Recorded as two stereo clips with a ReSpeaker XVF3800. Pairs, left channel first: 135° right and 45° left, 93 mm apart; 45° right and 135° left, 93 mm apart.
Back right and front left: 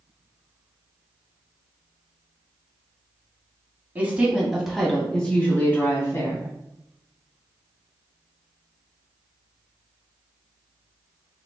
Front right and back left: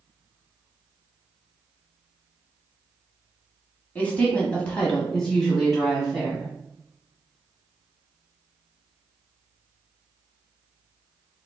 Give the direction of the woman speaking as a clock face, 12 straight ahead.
12 o'clock.